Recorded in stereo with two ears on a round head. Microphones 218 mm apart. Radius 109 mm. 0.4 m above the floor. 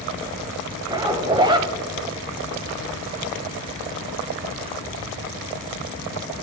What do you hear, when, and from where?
0.9 s a zipper: 20° right (ahead or behind), 1.1 m